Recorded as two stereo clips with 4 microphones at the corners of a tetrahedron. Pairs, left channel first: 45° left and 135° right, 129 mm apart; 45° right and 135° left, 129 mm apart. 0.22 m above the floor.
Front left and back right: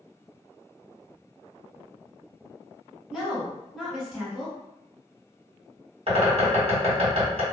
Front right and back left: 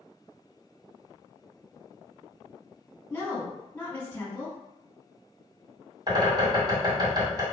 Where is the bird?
170° right, 1.6 m.